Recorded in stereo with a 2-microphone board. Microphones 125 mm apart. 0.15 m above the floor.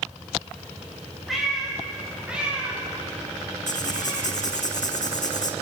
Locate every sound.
1.3 s a cat meowing: centre (ahead or behind), 8.5 m; by 4.3 s 20° right (ahead or behind), 12 m
3.7 s writing: 75° left (ahead or behind), 2 m